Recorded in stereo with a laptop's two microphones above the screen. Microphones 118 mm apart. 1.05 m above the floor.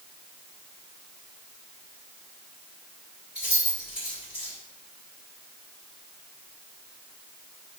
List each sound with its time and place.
3.4 s keys jangling: 10° right (ahead or behind), 1.6 m